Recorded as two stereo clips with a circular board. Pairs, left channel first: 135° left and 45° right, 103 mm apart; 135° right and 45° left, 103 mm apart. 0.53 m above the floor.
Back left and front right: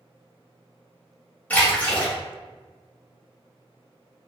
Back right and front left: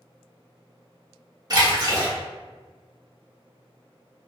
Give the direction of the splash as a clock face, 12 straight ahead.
10 o'clock.